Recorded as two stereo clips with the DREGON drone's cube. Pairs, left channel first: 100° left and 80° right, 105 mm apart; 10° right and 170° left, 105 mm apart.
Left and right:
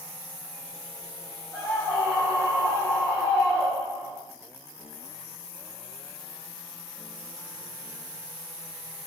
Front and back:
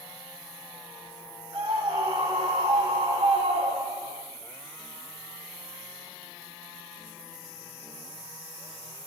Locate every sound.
1.5 s a scream: 155° right, 2.5 m